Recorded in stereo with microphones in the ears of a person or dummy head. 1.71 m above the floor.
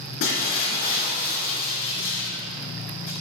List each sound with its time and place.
0.2 s breaking glass: 55° left (ahead or behind), 3 m